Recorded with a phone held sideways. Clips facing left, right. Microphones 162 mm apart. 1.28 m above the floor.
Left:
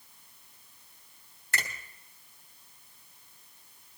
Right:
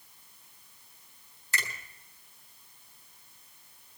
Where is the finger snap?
60° left (ahead or behind), 3.5 m.